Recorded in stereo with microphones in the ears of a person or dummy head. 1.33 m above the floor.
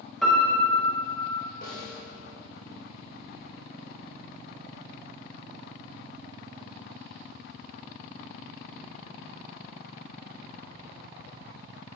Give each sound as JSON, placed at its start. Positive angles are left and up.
{"t": 0.2, "sound": "a piano", "side_deg": 5, "distance_m": 1.1}
{"t": 1.6, "sound": "a snare drum", "side_deg": 55, "distance_m": 1.6}